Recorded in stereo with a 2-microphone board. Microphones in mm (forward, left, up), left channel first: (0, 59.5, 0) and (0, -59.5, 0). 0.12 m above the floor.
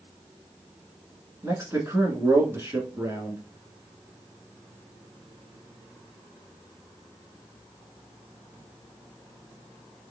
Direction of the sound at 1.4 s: 25° right (ahead or behind).